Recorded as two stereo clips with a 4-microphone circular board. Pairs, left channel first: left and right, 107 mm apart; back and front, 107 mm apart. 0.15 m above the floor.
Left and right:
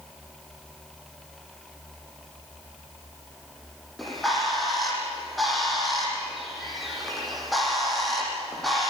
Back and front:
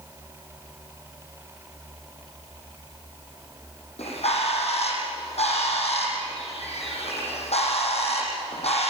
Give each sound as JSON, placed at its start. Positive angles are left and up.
{"t": 4.0, "sound": "a bird", "azimuth_deg": 180, "distance_m": 8.0}